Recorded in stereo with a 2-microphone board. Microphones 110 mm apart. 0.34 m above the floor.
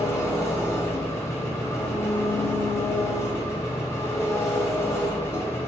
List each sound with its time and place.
0.0 s an engine running: 25° left (ahead or behind), 1.5 m